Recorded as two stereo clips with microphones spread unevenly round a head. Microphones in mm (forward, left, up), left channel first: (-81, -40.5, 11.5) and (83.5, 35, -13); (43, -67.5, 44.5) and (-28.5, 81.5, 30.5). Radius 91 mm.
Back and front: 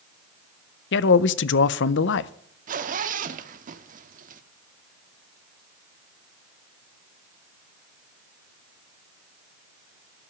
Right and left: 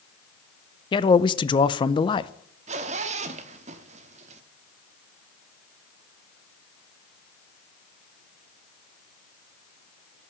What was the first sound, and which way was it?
A man speaking, 130° right.